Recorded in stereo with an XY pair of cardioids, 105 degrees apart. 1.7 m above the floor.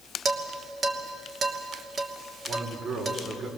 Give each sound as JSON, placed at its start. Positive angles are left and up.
{"t": 0.2, "sound": "dishes clattering", "azimuth_deg": -45, "distance_m": 3.0}
{"t": 2.5, "sound": "a man speaking", "azimuth_deg": -55, "distance_m": 5.5}